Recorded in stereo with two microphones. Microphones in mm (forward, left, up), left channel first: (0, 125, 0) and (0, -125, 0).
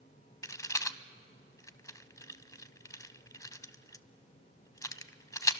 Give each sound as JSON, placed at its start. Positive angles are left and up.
{"t": 0.4, "sound": "a rattle", "side_deg": 15, "distance_m": 0.7}